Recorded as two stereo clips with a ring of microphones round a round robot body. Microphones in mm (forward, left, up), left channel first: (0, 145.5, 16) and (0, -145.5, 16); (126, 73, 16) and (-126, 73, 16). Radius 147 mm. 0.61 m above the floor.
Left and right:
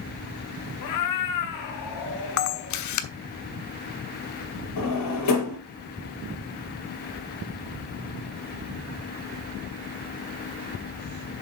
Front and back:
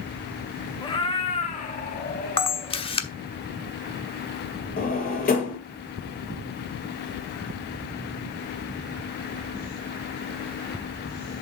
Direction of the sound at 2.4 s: 70° left.